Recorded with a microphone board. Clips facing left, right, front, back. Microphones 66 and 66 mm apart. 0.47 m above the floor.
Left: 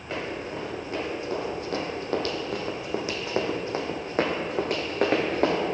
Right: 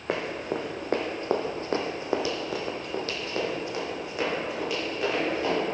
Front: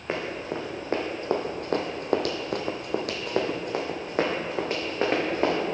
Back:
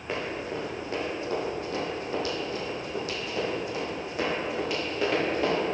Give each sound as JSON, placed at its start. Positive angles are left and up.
{"t": 0.1, "sound": "running footsteps", "azimuth_deg": -65, "distance_m": 1.4}